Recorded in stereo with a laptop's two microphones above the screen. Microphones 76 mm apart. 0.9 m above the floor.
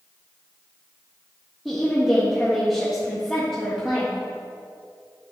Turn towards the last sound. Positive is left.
turn(degrees=0)  # may be behind; listen again after turning